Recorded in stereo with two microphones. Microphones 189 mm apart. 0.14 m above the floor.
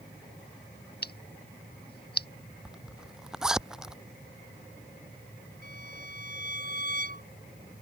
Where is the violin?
65° left (ahead or behind).